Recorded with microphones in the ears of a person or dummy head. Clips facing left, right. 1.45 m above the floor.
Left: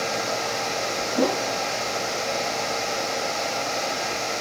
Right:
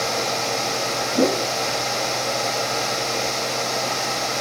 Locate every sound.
1.1 s a whoosh: 25° right (ahead or behind)